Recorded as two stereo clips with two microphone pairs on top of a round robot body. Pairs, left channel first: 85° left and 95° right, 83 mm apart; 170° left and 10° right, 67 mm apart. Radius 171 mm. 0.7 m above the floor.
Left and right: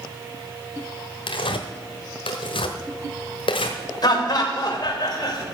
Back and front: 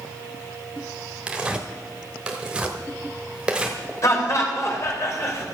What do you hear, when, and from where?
1.3 s tearing paper: 70° left, 0.9 m
4.0 s laughter: 125° left, 3 m